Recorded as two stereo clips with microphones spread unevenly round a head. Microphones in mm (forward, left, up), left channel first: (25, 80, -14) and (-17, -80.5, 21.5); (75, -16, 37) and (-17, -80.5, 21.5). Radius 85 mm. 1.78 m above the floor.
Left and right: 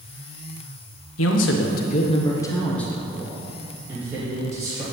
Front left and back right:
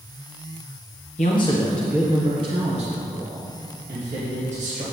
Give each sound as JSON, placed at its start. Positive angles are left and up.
{"t": 1.2, "sound": "a man speaking", "azimuth_deg": 85, "distance_m": 1.2}